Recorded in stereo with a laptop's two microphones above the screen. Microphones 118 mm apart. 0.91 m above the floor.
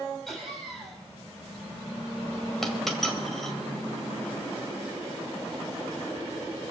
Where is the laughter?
5° left (ahead or behind), 6 m.